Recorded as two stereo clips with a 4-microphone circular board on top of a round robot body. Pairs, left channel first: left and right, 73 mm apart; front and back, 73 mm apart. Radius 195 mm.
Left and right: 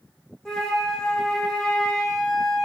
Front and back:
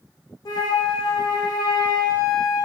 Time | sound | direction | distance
0.5 | a flute | 10° left | 0.6 m